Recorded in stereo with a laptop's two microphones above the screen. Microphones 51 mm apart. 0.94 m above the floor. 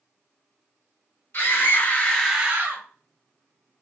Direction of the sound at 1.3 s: 50° left (ahead or behind).